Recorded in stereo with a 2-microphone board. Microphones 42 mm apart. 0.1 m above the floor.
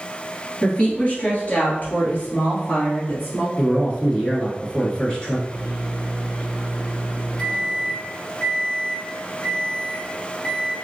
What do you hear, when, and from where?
0.6 s a woman speaking: 25° left (ahead or behind), 1.6 m; by 3.5 s 55° left (ahead or behind), 2 m
3.6 s a man speaking: 20° left (ahead or behind), 1.1 m
5.5 s a microwave: 20° left (ahead or behind), 1.7 m